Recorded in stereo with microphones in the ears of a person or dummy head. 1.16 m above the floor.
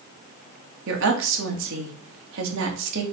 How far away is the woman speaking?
About 1.9 m.